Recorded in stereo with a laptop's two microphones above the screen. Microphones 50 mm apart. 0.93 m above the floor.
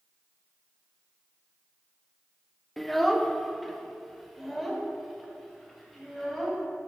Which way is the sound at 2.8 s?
Centre (ahead or behind).